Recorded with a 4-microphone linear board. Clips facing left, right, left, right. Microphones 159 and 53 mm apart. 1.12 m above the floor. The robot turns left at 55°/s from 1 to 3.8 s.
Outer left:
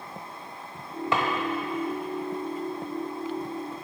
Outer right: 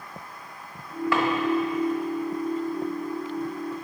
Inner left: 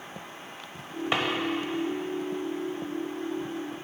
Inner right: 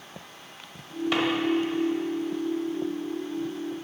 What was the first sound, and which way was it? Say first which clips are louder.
A drawer: outer right 3 dB, inner right 2 dB; 20° left (ahead or behind).